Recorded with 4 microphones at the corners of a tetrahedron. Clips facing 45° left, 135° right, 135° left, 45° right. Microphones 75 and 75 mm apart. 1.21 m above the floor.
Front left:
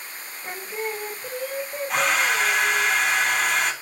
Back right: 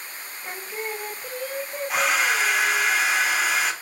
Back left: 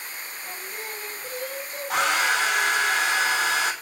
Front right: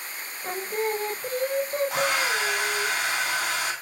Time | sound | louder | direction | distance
0.4 | singing | front left 2 dB, front right 12 dB | 45° right | 0.7 m
1.9 | a hair dryer | even, back left 2 dB | 135° left | 3.5 m